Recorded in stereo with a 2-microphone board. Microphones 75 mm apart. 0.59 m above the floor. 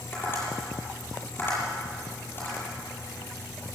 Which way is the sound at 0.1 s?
30° left (ahead or behind).